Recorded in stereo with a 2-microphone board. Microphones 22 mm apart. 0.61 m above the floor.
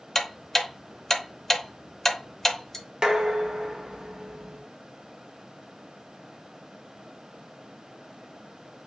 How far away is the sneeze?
I don't hear a sneeze.